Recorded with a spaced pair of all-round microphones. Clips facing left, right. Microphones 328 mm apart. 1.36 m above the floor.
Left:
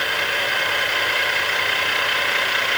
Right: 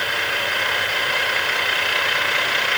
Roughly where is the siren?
No siren in this recording.